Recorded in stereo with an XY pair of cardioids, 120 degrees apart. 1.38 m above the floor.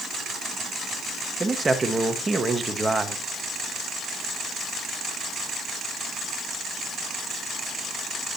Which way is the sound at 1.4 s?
15° right.